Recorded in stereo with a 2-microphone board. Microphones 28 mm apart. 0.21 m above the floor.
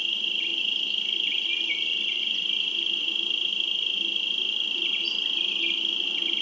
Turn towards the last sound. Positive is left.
turn(degrees=15)  # may be behind; listen again after turning